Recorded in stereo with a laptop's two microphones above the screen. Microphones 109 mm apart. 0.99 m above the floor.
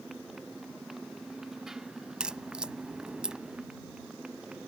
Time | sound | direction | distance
0.0 | a motorcycle | centre (ahead or behind) | ?
2.2 | a crack | 5° right (ahead or behind) | ?